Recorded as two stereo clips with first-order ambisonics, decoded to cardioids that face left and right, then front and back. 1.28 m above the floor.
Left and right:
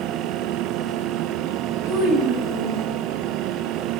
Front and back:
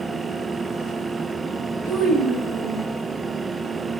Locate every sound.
1.9 s a child speaking: 75° right, 1.4 m